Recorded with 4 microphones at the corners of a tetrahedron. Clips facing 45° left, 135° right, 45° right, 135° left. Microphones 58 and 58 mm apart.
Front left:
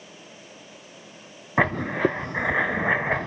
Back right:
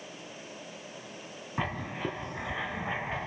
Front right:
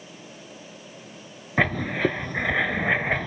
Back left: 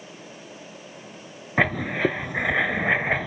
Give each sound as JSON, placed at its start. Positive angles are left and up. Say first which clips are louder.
{"t": 1.6, "sound": "writing", "louder": "front left 12 dB, back left 1 dB", "azimuth_deg": 50, "distance_m": 0.6}